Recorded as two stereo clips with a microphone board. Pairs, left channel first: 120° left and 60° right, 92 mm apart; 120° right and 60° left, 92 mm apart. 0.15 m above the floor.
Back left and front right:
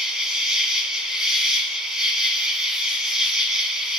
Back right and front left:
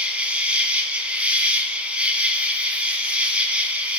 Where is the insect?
15° left, 1.8 m.